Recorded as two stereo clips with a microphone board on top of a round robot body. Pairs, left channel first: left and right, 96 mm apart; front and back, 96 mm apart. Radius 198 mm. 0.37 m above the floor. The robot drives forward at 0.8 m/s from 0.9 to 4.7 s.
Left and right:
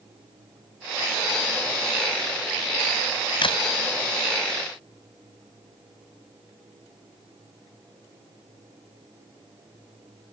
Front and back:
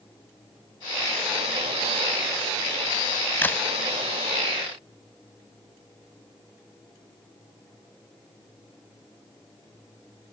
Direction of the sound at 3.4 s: 70° left.